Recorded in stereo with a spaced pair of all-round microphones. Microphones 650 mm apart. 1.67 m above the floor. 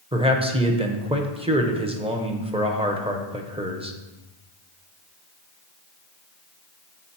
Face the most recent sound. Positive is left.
turn(degrees=-10)  # may be behind; listen again after turning